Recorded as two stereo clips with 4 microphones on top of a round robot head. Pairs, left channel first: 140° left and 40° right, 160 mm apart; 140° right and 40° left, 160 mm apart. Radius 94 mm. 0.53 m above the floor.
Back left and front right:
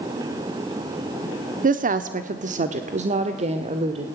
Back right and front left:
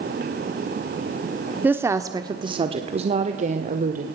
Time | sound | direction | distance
1.6 | a woman speaking | 35° right | 1.2 m